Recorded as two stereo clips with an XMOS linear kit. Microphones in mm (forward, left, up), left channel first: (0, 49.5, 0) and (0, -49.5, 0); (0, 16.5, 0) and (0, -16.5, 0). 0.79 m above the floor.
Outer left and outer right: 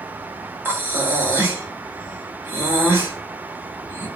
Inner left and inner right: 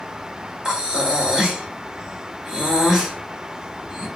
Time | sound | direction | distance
0.7 | breathing | 20° right (ahead or behind) | 0.9 m